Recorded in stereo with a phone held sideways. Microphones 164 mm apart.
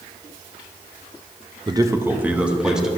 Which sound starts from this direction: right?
A man speaking, at 1.7 s.